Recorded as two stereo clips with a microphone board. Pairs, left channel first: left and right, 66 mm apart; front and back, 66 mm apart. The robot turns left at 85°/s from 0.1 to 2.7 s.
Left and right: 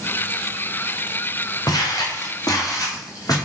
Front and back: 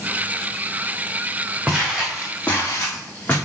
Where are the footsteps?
115° left, 2.5 m; by 3.4 s 60° left, 3.5 m.